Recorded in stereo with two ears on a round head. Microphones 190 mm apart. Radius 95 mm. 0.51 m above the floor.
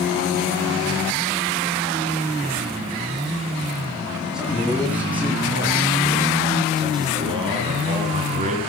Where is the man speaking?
5° right (ahead or behind), 7.5 m; by 8.6 s 35° right (ahead or behind), 5.5 m.